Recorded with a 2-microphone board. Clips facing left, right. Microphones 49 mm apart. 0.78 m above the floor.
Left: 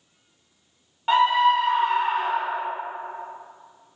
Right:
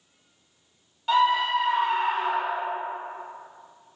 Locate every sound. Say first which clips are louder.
1.1 s a scream: left 3 dB; 35° left (ahead or behind), 0.5 m; by 2.7 s 30° left (ahead or behind), 1.7 m